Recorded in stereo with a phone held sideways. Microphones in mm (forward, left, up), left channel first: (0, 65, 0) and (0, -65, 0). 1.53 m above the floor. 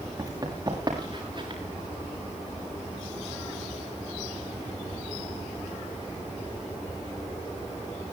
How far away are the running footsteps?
About 7 m.